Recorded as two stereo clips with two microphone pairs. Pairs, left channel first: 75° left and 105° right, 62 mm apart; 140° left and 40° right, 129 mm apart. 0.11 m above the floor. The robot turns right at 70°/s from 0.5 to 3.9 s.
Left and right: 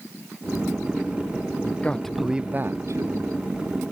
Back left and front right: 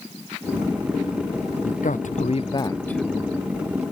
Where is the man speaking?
130° left; by 3.3 s 115° right.